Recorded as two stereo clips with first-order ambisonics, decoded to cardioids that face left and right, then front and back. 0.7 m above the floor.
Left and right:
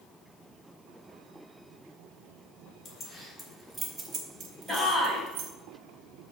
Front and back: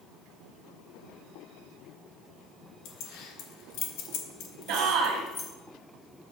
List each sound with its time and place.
2.9 s keys jangling: 20° left, 1.5 m; by 5.5 s 60° right, 1.8 m
4.7 s a shout: 165° left, 2.5 m